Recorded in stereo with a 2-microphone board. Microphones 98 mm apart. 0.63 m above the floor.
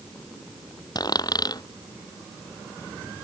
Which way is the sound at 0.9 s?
40° left (ahead or behind).